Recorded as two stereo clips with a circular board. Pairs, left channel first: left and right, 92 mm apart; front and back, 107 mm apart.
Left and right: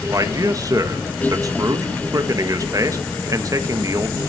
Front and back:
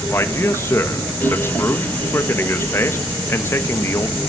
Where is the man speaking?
55° right, 1.2 m.